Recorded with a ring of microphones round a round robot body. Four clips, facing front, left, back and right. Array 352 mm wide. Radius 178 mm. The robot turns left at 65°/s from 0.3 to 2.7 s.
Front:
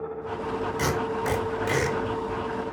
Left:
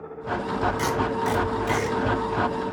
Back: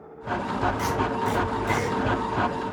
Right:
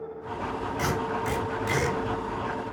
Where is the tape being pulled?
45° left, 1.7 m; by 2.0 s 30° right, 1.7 m.